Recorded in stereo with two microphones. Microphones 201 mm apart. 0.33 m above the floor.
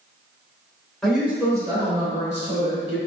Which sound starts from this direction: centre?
A woman speaking, at 1.0 s.